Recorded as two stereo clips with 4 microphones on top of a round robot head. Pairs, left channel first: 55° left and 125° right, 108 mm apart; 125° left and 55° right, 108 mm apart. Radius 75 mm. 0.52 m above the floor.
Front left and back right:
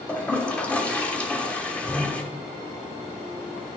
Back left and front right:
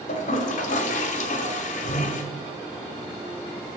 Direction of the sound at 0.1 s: 135° left.